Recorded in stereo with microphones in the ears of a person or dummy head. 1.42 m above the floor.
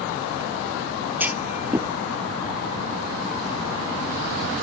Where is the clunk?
10° right (ahead or behind).